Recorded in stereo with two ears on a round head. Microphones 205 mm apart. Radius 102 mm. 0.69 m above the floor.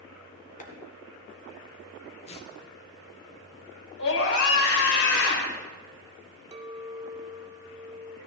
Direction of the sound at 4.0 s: 65° left (ahead or behind).